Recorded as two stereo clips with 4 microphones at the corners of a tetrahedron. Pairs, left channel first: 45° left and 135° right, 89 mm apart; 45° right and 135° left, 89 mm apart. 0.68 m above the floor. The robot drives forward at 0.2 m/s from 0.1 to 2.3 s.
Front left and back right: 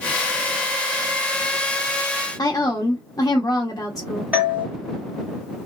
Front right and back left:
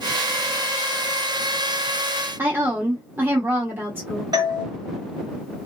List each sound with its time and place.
2.4 s a woman speaking: 80° left, 0.8 m
4.3 s a doorbell: 155° left, 1.5 m